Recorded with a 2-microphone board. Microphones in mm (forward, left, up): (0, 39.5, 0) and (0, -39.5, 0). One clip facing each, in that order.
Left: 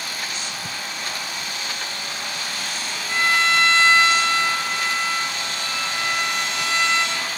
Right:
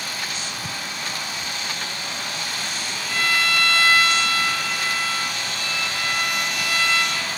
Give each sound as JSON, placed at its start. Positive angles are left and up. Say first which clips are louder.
{"t": 3.1, "sound": "a violin", "louder": "left 3 dB", "side_deg": 25, "distance_m": 0.9}